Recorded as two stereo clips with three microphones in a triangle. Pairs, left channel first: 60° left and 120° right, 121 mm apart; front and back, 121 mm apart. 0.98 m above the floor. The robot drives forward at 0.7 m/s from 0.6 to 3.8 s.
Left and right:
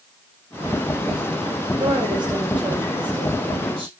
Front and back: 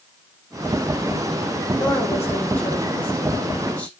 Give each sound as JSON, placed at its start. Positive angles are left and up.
{"t": 1.8, "sound": "a woman speaking", "azimuth_deg": -65, "distance_m": 6.0}